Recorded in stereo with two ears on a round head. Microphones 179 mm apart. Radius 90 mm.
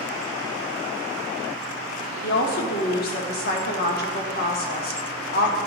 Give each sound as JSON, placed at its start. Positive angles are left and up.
{"t": 2.2, "sound": "a woman speaking", "side_deg": 50, "distance_m": 1.2}